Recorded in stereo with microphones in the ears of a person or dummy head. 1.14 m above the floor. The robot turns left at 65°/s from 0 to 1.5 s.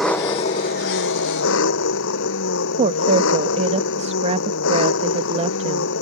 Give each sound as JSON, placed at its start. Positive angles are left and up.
{"t": 0.0, "sound": "an engine running", "azimuth_deg": 180}
{"t": 2.8, "sound": "a woman speaking", "side_deg": -35}